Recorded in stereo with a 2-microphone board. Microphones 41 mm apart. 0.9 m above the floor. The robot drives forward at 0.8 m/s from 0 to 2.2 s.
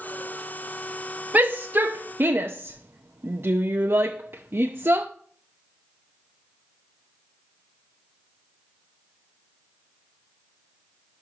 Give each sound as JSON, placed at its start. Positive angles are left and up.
{"t": 1.3, "sound": "a shout", "side_deg": -40, "distance_m": 1.0}